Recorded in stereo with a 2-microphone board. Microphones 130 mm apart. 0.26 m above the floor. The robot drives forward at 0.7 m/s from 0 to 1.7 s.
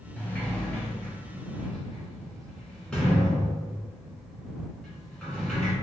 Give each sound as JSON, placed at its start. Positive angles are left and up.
{"t": 0.2, "sound": "a sliding door", "side_deg": 15, "distance_m": 0.8}